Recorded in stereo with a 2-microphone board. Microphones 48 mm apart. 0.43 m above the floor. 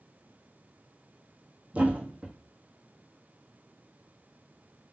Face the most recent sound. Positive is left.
turn(degrees=-30)  # may be behind; listen again after turning